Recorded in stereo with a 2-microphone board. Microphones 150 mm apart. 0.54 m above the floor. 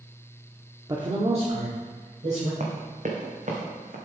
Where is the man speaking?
25° right (ahead or behind), 0.8 m; by 2.5 s 50° right (ahead or behind), 2 m.